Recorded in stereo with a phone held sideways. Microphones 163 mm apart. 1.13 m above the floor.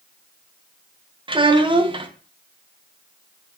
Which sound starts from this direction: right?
A child speaking, at 1.3 s.